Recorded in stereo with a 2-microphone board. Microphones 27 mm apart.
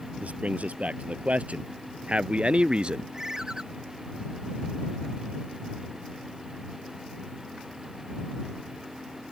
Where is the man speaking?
65° right (ahead or behind); by 3.0 s 40° right (ahead or behind).